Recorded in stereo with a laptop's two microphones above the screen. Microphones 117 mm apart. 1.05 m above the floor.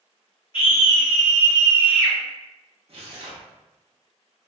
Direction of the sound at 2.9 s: 55° right (ahead or behind).